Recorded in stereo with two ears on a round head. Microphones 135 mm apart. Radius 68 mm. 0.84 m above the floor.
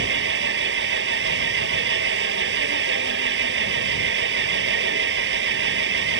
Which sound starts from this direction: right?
An engine running, at 0.0 s.